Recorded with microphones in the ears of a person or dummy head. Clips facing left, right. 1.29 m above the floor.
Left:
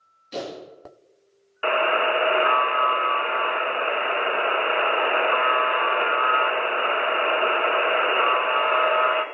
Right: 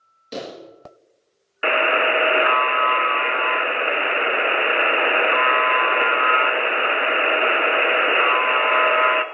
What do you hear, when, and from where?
0.3 s a pop: 70° right (ahead or behind), 5.5 m
1.6 s a buzzer: 25° right (ahead or behind), 0.6 m